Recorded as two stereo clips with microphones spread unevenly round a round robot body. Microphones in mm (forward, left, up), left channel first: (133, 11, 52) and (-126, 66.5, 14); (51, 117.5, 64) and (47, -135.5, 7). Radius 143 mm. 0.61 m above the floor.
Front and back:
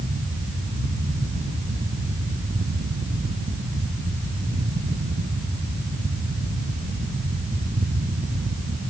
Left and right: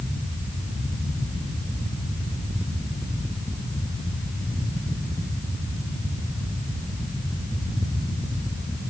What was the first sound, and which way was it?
Only background noise.